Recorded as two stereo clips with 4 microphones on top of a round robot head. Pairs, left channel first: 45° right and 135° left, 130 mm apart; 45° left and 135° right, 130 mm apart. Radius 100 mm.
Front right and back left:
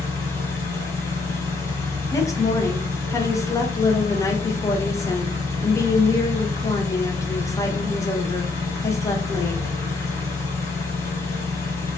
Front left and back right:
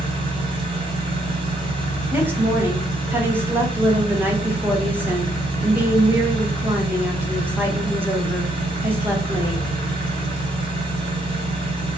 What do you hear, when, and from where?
0.0 s an engine running: 105° right, 1.6 m
2.1 s a woman speaking: 80° right, 1.0 m